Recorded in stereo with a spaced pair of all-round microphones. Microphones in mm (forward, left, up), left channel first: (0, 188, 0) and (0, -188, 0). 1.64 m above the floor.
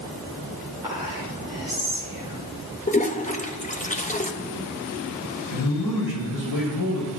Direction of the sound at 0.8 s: 15° right (ahead or behind).